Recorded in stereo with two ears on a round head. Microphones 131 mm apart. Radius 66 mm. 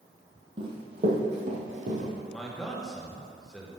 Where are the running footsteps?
35° right (ahead or behind), 2 m; by 2.1 s 55° right (ahead or behind), 2.5 m.